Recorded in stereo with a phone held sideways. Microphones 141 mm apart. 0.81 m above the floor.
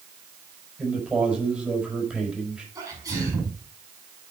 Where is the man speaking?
10° right (ahead or behind), 4.5 m.